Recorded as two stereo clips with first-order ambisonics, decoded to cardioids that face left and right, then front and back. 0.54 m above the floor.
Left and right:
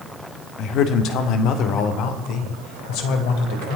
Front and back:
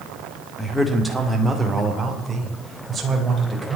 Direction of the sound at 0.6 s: 85° left.